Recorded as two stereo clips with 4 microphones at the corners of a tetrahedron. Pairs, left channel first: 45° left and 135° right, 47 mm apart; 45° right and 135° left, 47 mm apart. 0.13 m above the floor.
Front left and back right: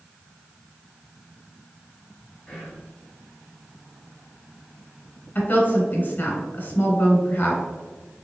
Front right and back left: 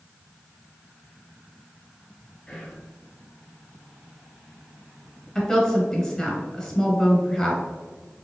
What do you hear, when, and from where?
2.5 s whispering: 10° left, 1.8 m
5.3 s a woman speaking: 35° left, 1.2 m